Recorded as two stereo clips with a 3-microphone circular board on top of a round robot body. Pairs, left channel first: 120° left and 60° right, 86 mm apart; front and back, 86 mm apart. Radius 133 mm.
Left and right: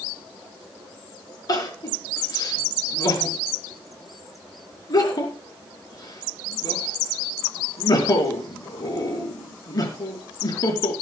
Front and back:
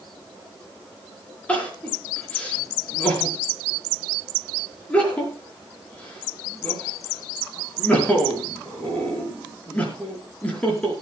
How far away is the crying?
About 5 m.